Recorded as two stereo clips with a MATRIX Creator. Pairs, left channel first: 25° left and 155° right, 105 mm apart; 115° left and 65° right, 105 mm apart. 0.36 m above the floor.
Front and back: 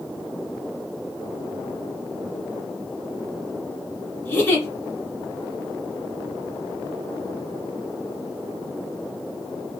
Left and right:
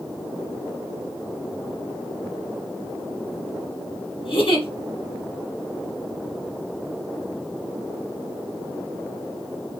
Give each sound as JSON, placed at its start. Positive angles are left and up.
{"t": 4.2, "sound": "a giggle", "azimuth_deg": 95, "distance_m": 2.5}